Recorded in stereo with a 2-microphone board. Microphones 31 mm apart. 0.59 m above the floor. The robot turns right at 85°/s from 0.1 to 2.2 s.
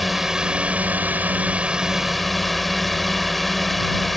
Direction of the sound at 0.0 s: 175° right.